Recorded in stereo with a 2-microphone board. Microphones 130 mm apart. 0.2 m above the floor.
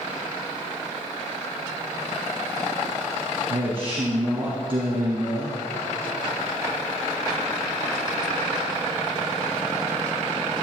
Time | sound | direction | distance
3.5 | a man speaking | 40° right (ahead or behind) | 3 m